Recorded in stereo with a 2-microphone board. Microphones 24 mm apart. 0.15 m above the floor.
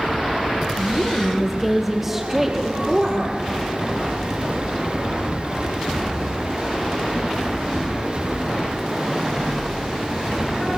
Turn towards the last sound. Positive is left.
turn(degrees=-15)  # may be behind; listen again after turning